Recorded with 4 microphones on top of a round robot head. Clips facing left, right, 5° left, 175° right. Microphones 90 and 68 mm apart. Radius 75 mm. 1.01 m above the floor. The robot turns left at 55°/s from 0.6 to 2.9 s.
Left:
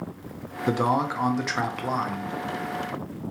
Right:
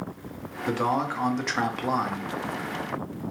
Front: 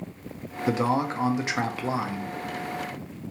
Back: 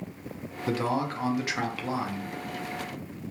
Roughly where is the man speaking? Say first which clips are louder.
Left 2 dB, front 4 dB; ahead left.